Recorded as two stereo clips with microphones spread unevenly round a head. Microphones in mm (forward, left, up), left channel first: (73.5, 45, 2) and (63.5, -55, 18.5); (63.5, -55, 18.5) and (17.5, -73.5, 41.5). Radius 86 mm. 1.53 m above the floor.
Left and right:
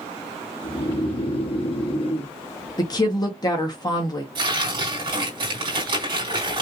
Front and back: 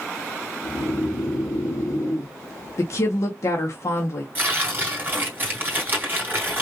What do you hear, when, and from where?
0.6 s snoring: 55° left, 2.5 m
2.8 s a woman speaking: 35° left, 1.3 m
4.3 s tearing paper: 145° right, 2.5 m